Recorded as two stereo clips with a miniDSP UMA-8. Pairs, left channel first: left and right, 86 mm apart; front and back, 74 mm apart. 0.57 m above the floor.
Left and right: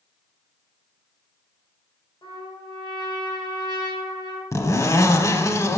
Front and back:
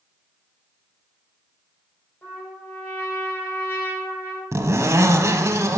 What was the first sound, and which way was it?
A trumpet, 60° left.